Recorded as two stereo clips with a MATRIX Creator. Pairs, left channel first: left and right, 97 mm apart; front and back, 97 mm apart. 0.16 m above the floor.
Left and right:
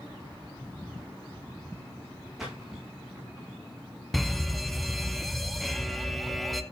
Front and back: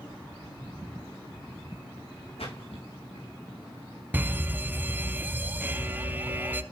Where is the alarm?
175° left, 1.1 m.